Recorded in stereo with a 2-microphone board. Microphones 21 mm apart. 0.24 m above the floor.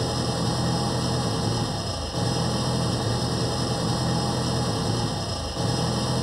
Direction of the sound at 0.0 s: 15° right (ahead or behind).